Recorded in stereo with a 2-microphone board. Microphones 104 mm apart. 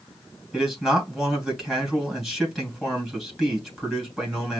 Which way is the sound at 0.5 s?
Centre (ahead or behind).